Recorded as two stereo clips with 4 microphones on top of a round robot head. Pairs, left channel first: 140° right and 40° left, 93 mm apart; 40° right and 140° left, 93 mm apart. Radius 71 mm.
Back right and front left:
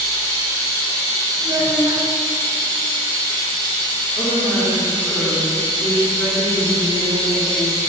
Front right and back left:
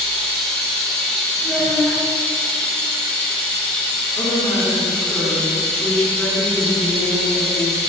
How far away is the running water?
About 1.4 m.